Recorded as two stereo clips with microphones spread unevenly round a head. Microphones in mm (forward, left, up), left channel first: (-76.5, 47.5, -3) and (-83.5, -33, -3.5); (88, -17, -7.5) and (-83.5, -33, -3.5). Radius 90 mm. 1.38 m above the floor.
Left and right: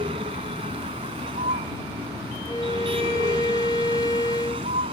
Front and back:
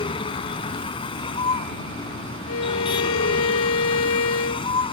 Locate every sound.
0.0 s a vehicle: 55° right
2.5 s a violin: 15° left